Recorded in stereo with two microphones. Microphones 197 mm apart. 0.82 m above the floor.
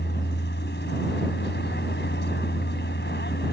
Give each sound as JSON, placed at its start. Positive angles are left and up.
{"t": 0.0, "sound": "a vehicle", "side_deg": 65}